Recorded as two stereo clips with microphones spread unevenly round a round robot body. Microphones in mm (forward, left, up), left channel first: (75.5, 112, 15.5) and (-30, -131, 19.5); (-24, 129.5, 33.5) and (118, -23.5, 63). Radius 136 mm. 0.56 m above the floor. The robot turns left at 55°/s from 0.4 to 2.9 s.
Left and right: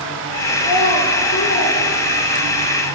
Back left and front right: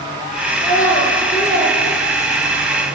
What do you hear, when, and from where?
0.6 s a child speaking: 70° left, 7 m; by 2.7 s 45° right, 7 m